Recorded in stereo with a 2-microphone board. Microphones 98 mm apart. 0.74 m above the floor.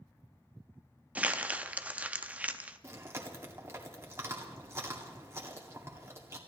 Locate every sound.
1.1 s crumpling: 15° right (ahead or behind), 0.6 m
2.8 s chewing: 30° right (ahead or behind), 2.0 m